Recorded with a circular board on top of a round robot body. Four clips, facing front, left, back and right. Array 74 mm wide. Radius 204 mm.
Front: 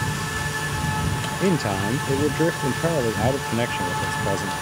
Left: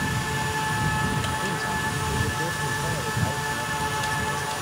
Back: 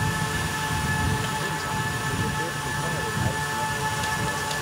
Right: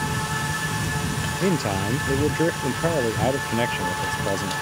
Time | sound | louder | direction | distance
1.4 | a man speaking | right 4 dB, front 6 dB | 40° right | ?